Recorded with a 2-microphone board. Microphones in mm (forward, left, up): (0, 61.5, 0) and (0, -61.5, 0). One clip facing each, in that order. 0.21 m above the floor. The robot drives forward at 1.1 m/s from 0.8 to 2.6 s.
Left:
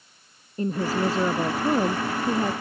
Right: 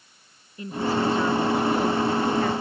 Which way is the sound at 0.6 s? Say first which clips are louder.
Even; 45° left (ahead or behind).